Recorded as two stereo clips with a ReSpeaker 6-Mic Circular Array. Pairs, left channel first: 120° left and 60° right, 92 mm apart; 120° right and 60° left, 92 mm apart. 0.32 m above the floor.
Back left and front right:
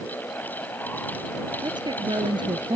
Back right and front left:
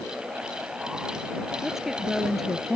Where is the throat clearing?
No throat clearing in this recording.